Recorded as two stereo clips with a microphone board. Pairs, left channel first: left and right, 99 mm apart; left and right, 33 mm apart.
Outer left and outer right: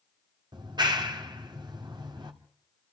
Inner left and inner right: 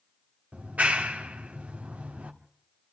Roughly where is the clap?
Right.